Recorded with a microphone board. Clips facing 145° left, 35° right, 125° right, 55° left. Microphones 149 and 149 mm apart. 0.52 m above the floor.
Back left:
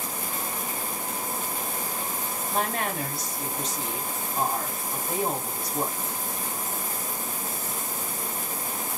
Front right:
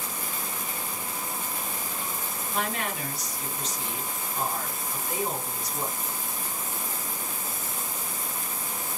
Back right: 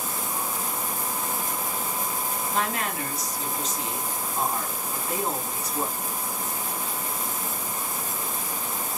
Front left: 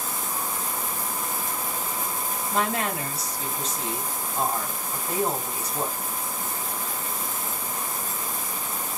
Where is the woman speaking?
110° left, 3 m.